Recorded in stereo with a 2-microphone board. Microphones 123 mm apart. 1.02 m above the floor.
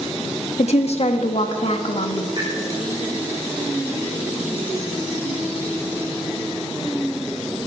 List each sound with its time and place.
0.6 s a woman speaking: 60° left (ahead or behind), 1.4 m
2.4 s a pop: 40° right (ahead or behind), 4.5 m